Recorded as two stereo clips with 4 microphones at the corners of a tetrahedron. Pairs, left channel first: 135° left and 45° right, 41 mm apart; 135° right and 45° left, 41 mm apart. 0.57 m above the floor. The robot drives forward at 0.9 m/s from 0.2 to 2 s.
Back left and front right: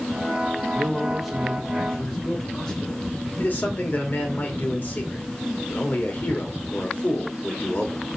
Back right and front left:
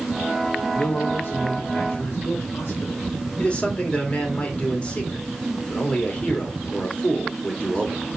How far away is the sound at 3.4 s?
About 2 m.